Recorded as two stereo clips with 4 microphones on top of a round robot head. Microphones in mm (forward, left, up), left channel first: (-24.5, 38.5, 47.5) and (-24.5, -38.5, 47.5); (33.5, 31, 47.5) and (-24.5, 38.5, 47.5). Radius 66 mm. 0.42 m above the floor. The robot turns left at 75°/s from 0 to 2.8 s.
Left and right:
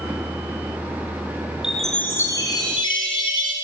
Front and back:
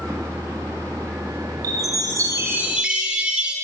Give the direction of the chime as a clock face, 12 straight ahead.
6 o'clock.